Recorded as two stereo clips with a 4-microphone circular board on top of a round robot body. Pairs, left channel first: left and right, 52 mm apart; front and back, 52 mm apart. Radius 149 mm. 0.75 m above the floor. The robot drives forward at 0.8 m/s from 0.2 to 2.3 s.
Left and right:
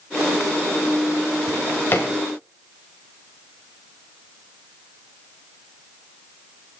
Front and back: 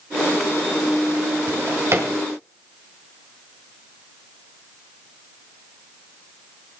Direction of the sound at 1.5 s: 135° left.